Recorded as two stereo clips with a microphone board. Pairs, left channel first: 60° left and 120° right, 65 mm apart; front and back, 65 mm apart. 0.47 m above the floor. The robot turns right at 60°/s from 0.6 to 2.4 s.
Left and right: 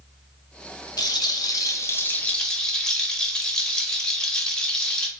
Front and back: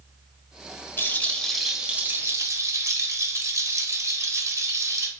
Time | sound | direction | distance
1.0 | a rattle | 55° left | 0.6 m